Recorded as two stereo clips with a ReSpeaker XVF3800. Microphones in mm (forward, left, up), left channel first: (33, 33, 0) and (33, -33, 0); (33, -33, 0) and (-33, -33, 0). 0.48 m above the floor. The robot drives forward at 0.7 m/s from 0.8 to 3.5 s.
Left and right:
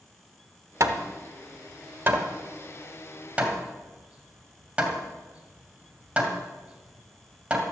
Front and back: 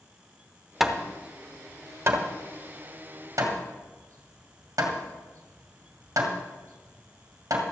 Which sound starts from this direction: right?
Hammering, at 0.8 s.